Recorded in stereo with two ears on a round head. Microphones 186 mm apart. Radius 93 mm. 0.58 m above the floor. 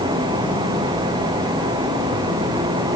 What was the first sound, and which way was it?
Only background noise.